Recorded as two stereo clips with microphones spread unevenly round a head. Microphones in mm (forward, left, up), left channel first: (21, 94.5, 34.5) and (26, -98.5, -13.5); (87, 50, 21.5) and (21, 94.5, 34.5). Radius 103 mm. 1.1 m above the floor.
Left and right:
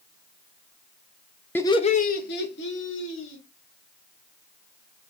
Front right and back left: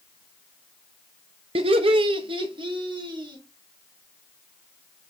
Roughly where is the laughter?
Behind.